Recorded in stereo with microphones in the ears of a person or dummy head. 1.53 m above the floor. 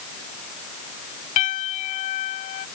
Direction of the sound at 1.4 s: 40° left (ahead or behind).